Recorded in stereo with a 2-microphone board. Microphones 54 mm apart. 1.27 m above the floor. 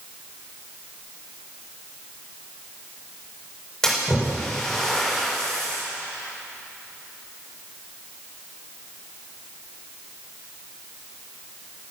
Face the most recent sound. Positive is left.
turn(degrees=10)  # may be behind; listen again after turning